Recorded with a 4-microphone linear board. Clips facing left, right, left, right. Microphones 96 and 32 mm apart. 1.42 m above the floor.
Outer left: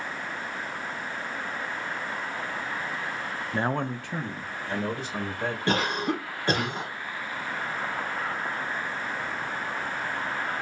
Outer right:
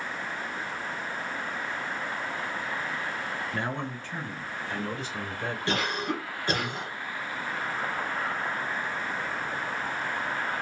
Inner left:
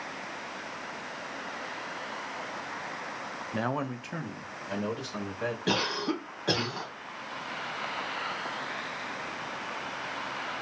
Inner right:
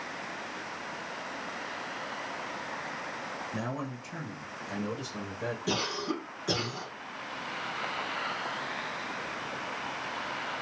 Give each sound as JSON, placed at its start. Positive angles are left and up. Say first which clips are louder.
{"t": 3.5, "sound": "a man speaking", "louder": "outer left 9 dB, inner left 8 dB", "side_deg": 25, "distance_m": 0.5}
{"t": 5.7, "sound": "a cough", "louder": "outer left 3 dB, inner left 3 dB", "side_deg": 55, "distance_m": 1.3}